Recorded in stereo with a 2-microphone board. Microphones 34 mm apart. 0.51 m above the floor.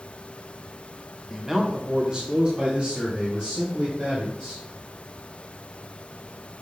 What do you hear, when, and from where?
1.3 s a man speaking: 5° right (ahead or behind), 0.8 m; by 4.6 s 45° right (ahead or behind), 2.5 m